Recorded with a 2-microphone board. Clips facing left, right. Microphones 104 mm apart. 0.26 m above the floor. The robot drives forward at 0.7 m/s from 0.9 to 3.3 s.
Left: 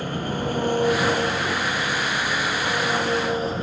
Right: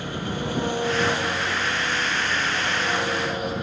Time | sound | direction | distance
0.0 | an engine running | 45° left (ahead or behind) | 4.5 m